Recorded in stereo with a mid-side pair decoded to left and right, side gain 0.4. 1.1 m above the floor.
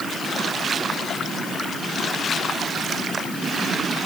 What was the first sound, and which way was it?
Only background noise.